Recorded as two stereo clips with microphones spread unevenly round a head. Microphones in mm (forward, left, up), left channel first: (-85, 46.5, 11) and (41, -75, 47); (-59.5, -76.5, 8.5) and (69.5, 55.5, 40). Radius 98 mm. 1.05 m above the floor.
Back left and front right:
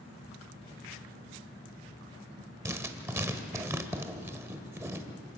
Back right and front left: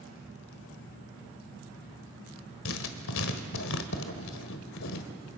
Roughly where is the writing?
Behind right.